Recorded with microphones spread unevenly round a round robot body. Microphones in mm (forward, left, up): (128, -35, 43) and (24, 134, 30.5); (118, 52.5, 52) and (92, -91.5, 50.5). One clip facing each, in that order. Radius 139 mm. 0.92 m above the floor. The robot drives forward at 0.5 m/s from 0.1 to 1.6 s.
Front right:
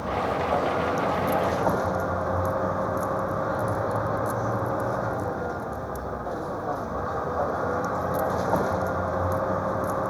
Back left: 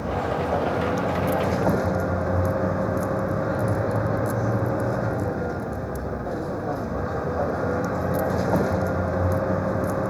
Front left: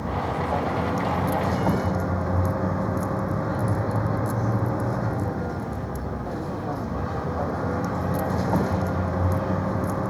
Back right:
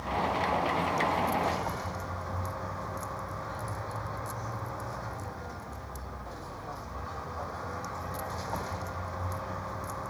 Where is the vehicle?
55° left.